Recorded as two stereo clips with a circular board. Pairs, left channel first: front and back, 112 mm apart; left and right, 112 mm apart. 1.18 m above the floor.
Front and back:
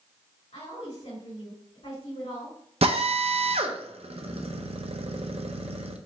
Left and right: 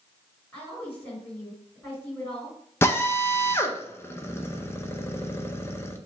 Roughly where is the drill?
Behind left.